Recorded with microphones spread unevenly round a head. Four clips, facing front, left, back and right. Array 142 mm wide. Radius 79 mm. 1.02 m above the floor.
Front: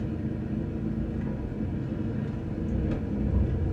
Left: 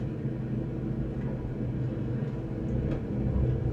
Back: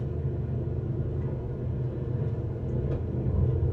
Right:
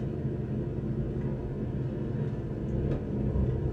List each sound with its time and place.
0.0 s an engine running: 20° left, 1.7 m